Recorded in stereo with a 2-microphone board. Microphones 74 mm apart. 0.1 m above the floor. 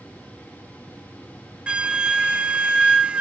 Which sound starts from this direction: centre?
A flute, at 1.7 s.